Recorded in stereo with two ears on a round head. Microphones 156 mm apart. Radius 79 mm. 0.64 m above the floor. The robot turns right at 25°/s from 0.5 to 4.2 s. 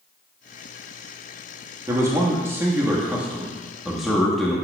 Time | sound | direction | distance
1.9 | a man speaking | 20° right (ahead or behind) | 1.2 m